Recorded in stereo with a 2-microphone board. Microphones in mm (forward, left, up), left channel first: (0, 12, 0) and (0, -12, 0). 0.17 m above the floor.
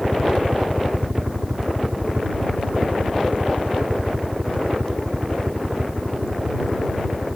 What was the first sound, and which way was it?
A helicopter, 40° right (ahead or behind).